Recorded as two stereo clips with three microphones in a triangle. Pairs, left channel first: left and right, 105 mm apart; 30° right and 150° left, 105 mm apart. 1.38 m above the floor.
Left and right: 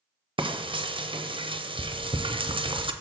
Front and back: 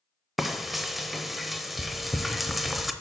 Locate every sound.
0.4 s frying: 120° right, 0.6 m